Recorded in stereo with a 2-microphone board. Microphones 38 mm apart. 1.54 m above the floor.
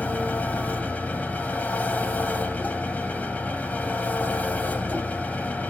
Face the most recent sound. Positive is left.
turn(degrees=50)  # may be behind; listen again after turning